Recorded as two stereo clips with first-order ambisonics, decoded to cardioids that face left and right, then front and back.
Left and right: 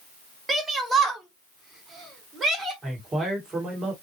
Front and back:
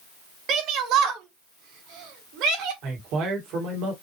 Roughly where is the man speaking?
Behind.